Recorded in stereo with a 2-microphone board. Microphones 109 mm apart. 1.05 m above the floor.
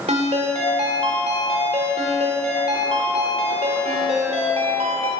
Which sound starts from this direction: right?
A ringtone, at 0.1 s.